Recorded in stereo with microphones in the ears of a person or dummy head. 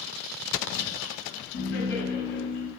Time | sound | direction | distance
1.5 | laughter | 55° left (ahead or behind) | 0.8 m